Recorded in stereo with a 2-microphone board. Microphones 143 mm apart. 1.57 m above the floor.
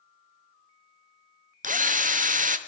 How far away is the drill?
About 0.6 m.